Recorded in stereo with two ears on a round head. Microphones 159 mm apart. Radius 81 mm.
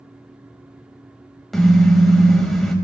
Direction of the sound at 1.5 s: Centre (ahead or behind).